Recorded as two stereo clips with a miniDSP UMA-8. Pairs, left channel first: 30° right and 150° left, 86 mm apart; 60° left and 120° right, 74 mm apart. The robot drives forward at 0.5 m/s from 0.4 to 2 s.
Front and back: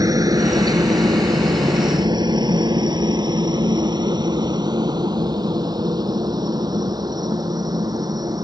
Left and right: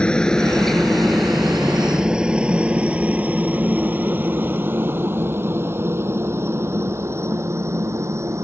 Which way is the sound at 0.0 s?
135° left.